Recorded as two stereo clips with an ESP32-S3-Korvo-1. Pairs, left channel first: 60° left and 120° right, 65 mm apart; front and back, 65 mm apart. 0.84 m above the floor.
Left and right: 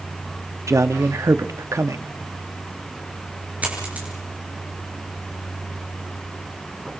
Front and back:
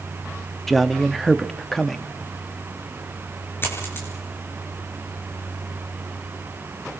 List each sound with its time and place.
0.7 s a man speaking: 85° right, 1.1 m
3.6 s a dropped coin: 55° right, 6 m